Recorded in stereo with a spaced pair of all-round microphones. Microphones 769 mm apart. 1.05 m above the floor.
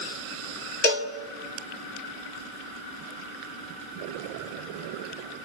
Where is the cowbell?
65° left (ahead or behind), 1.5 m.